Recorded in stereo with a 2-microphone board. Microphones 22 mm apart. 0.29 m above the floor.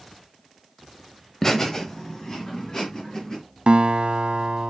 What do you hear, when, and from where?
1.4 s laughter: 20° left (ahead or behind), 0.9 m; by 3.4 s 40° left (ahead or behind), 3 m
3.7 s a guitar: 65° right (ahead or behind), 0.8 m